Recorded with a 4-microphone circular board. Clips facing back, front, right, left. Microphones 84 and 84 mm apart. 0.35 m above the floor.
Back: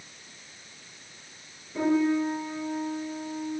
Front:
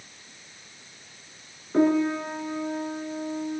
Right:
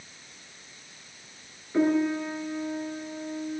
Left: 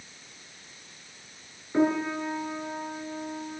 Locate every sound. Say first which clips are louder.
1.7 s a piano: front 2 dB, right 1 dB; 20° left, 3 m